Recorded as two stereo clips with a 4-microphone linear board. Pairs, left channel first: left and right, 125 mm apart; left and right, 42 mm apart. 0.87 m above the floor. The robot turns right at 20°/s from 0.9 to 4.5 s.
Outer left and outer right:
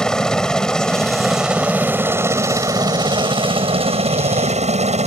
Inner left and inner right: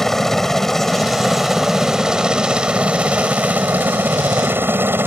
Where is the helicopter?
175° left; by 5.1 s 115° right.